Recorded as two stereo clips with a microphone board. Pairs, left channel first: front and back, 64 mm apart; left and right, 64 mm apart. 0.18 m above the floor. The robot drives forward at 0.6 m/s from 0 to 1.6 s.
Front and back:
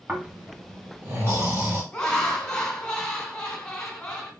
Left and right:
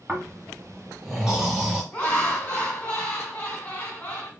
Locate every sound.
0.1 s snoring: 160° right, 1.5 m; by 1.8 s 170° right, 2 m
1.9 s laughter: 80° left, 1.7 m